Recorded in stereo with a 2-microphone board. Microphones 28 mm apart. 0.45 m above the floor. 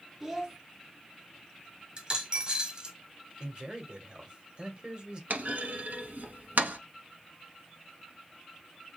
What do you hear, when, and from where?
0.2 s a child speaking: 15° right (ahead or behind), 0.9 m
2.0 s a dropped coin: 30° right (ahead or behind), 1.1 m
3.4 s a man speaking: 30° right (ahead or behind), 1.6 m
5.3 s a clunk: 80° right, 1.0 m